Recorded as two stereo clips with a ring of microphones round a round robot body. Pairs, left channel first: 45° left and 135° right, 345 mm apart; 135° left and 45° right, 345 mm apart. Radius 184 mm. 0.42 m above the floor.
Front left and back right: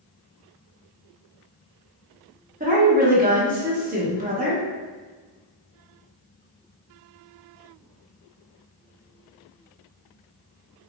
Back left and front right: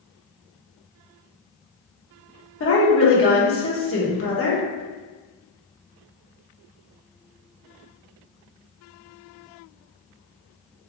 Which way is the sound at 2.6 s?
165° left.